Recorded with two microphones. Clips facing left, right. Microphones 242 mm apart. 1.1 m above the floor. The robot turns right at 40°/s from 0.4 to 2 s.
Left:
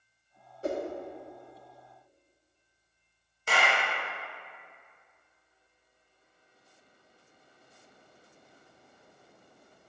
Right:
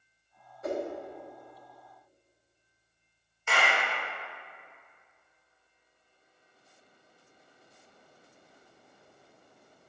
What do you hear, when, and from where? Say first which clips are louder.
0.6 s a whoosh: even; 30° left (ahead or behind), 0.6 m; by 0.8 s 35° left (ahead or behind), 0.6 m
3.5 s a clap: left 1 dB; 40° left (ahead or behind), 0.9 m